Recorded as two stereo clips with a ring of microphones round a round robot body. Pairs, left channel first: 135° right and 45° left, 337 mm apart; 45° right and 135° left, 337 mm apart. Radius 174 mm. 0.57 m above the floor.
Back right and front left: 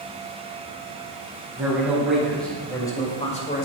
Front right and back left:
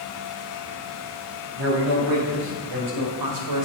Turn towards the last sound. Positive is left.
turn(degrees=165)